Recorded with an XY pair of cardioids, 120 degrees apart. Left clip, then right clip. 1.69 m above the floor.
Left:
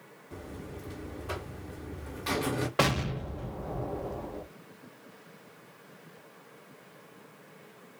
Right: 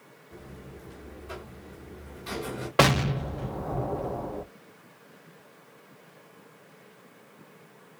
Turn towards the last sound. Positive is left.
turn(degrees=-35)